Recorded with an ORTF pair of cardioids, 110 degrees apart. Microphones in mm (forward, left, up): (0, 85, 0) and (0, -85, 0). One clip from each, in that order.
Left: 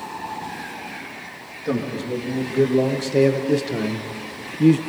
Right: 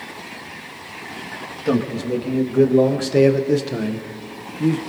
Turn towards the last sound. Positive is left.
turn(degrees=30)